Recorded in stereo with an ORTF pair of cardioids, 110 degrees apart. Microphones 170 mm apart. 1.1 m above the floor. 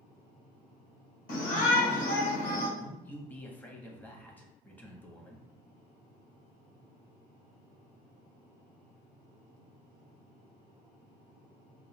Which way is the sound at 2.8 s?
10° left.